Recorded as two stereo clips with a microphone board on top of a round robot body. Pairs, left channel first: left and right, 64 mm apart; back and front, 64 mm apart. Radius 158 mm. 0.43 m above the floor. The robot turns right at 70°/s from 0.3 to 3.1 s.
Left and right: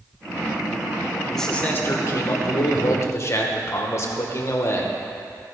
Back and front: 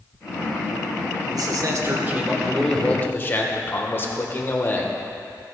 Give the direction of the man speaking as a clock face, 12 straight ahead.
12 o'clock.